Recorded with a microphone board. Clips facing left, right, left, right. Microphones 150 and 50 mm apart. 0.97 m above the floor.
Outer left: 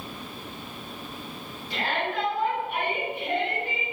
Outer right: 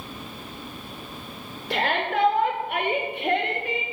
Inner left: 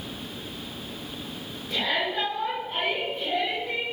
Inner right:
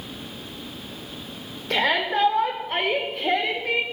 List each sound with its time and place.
1.7 s a shout: 80° right, 3.5 m; by 3.8 s 75° right (ahead or behind), 3 m